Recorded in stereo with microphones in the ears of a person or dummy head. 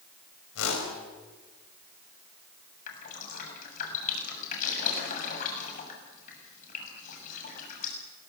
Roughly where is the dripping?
Left.